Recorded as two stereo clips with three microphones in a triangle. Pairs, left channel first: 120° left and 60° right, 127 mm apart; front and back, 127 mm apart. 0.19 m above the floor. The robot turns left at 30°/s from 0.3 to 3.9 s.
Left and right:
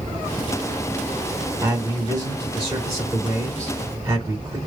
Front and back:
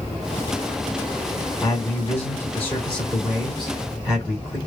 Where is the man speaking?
30° right, 1.5 m; by 4.6 s 100° right, 1.5 m.